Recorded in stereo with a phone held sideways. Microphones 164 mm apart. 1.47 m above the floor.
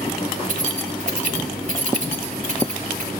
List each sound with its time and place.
0.4 s keys jangling: 50° right (ahead or behind), 5 m